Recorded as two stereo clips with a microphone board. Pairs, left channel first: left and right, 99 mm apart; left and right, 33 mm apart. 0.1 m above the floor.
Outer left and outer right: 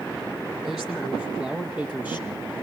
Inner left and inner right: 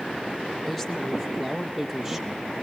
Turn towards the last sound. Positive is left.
turn(degrees=-20)  # may be behind; listen again after turning